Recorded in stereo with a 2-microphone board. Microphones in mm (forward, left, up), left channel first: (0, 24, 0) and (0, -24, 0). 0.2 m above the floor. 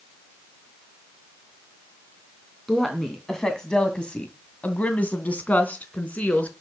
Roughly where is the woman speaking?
Centre.